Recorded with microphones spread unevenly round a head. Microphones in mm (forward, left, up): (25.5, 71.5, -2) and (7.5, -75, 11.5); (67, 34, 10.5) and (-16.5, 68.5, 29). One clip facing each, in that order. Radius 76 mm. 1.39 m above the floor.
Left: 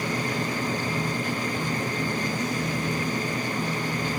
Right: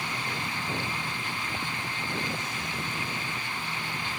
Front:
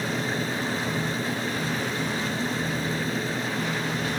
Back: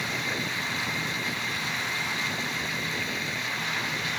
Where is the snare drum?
No snare drum in this recording.